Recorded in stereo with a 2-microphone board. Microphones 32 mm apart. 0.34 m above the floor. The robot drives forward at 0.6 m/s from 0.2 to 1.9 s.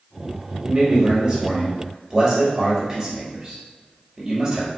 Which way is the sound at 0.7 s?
25° right (ahead or behind).